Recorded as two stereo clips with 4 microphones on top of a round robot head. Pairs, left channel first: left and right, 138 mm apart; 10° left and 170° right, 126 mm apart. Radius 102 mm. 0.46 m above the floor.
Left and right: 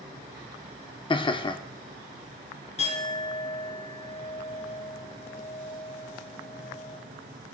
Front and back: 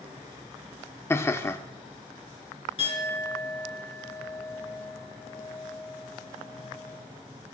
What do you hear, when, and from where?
1.1 s laughter: 65° left, 0.9 m
2.8 s a clink: 50° left, 4 m